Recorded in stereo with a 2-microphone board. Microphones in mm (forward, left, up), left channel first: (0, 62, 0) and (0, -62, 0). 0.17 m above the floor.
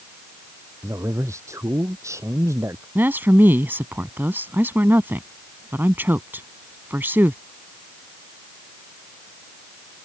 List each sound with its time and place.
0.8 s a man speaking: 25° right (ahead or behind)
3.0 s a woman speaking: 15° right (ahead or behind)